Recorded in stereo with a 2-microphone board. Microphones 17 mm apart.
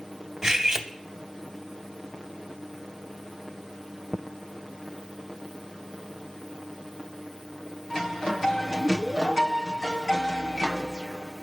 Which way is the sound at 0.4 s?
30° right (ahead or behind).